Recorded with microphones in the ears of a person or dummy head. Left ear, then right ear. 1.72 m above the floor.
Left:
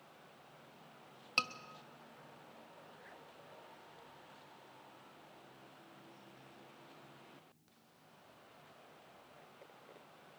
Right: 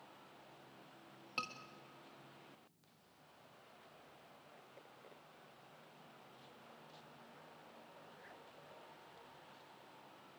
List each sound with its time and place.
1.4 s a scream: 30° left (ahead or behind), 1.4 m